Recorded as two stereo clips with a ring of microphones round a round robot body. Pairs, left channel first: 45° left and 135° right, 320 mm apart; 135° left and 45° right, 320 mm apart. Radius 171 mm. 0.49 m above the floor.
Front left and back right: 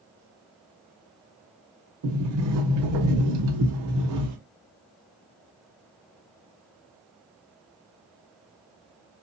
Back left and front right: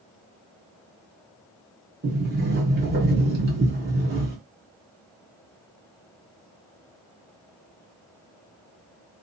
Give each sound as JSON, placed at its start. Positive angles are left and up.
{"t": 2.0, "sound": "a sliding door", "azimuth_deg": -105, "distance_m": 1.2}